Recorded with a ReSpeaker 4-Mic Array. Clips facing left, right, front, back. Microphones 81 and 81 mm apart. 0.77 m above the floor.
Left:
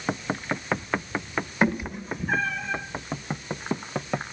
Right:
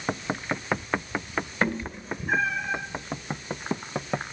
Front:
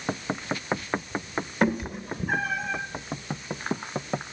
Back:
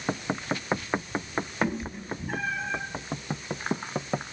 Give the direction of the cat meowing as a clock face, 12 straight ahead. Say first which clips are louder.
Left 5 dB, front 7 dB; 11 o'clock.